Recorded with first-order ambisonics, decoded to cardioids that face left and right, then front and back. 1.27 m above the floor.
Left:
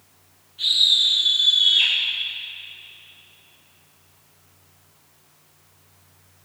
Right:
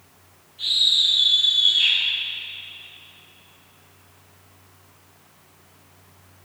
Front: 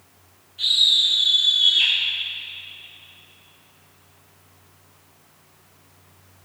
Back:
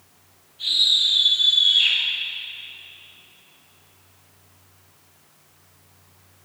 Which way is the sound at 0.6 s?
25° left.